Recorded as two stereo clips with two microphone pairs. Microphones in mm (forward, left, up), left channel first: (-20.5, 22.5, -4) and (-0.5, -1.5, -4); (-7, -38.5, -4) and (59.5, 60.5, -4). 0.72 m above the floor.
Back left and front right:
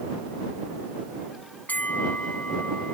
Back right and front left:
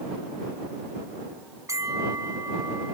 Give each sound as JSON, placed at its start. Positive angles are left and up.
{"t": 1.7, "sound": "a bell", "azimuth_deg": 120}